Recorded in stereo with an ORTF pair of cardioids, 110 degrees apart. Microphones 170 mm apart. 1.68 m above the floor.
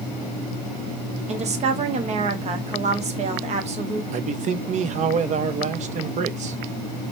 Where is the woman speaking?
40° right, 0.7 m.